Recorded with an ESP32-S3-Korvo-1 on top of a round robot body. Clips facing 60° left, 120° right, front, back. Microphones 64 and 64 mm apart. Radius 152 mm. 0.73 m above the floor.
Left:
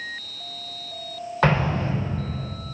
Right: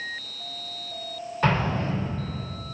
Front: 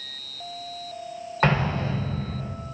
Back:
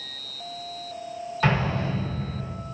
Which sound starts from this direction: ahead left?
An explosion, at 1.4 s.